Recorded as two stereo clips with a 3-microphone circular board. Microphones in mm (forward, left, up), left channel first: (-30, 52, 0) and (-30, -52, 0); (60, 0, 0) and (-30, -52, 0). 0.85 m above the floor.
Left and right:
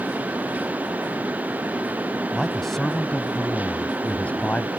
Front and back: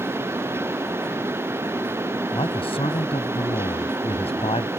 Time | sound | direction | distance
2.3 | a man speaking | straight ahead | ?